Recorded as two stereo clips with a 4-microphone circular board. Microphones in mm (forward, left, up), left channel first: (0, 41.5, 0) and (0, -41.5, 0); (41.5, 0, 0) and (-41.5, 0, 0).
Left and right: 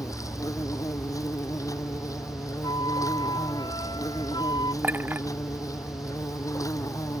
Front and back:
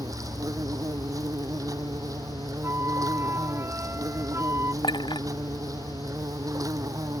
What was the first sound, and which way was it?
An insect, 135° left.